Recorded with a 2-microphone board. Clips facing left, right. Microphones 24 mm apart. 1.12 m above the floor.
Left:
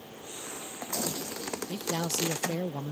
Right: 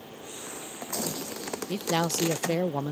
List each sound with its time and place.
1.7 s a man speaking: 35° right (ahead or behind)